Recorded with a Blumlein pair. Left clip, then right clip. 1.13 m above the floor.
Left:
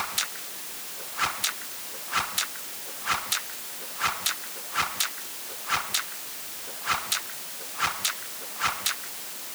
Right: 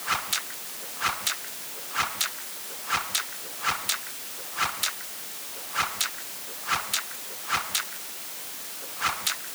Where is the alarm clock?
No alarm clock in this recording.